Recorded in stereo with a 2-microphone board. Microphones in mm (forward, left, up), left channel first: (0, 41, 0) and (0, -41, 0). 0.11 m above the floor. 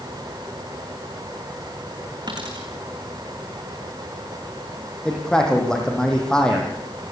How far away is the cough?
No cough in this recording.